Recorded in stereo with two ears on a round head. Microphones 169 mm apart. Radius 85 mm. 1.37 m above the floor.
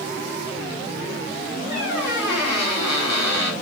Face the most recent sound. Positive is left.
turn(degrees=60)  # may be behind; listen again after turning